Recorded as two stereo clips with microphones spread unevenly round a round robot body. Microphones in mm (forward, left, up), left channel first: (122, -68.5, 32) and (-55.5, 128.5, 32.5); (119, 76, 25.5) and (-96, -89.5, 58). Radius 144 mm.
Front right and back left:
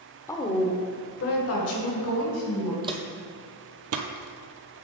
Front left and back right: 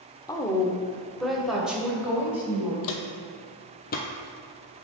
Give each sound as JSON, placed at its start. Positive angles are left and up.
{"t": 0.3, "sound": "a woman speaking", "azimuth_deg": 10, "distance_m": 0.9}
{"t": 2.8, "sound": "footsteps", "azimuth_deg": 60, "distance_m": 0.9}